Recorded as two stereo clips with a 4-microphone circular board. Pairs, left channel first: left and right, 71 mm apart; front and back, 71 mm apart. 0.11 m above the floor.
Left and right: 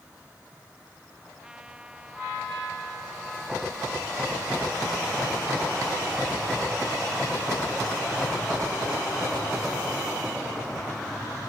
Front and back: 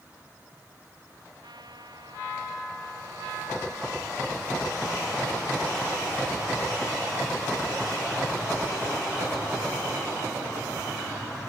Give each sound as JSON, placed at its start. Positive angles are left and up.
{"t": 1.4, "sound": "a trumpet", "azimuth_deg": -170}